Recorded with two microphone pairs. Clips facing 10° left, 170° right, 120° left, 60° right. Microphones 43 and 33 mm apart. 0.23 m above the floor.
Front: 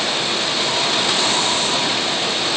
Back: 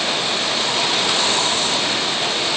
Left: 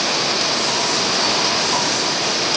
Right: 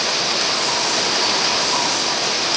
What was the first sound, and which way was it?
Only background noise.